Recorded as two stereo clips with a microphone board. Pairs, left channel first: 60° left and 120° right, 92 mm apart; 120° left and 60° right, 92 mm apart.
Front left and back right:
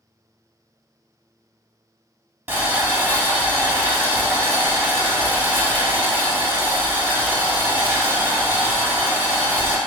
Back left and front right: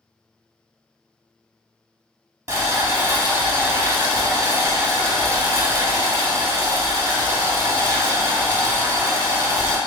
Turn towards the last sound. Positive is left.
turn(degrees=-75)